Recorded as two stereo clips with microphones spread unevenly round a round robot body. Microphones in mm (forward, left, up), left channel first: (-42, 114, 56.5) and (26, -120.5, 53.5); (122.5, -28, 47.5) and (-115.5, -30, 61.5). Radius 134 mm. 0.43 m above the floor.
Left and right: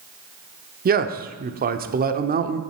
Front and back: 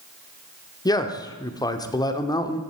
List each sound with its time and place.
0.8 s a man speaking: 60° right, 0.9 m